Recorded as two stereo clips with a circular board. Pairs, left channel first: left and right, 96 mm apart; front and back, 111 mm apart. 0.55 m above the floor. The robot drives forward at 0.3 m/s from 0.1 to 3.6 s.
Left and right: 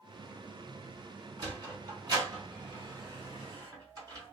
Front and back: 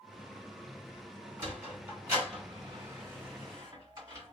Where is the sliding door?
115° right, 1.8 m; by 4.3 s 135° right, 2 m.